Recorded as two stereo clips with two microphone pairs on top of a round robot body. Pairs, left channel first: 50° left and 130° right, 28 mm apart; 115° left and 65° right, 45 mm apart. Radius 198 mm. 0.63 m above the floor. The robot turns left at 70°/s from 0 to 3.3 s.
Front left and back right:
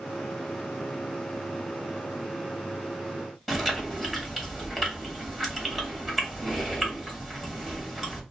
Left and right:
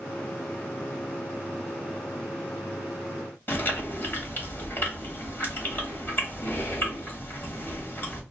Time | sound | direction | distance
3.5 | chewing | 155° left | 1.7 m